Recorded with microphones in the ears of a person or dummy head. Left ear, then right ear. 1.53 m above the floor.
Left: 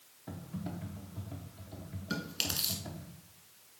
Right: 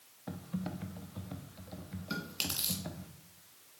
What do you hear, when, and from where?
0.3 s typing on a keyboard: 35° right (ahead or behind), 0.8 m
2.1 s chewing: 5° left (ahead or behind), 1.4 m